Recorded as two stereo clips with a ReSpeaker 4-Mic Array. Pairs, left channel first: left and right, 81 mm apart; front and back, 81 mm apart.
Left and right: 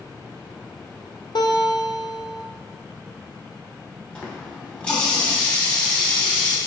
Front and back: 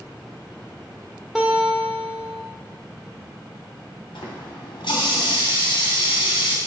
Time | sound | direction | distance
1.4 | a guitar | 95° left | 1.8 m
4.2 | a running tap | 15° left | 3 m